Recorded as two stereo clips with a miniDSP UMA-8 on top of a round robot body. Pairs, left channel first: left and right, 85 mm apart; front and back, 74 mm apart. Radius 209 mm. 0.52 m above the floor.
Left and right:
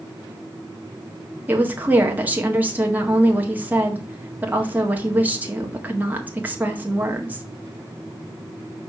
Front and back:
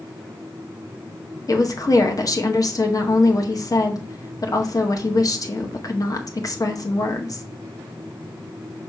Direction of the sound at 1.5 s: 25° right.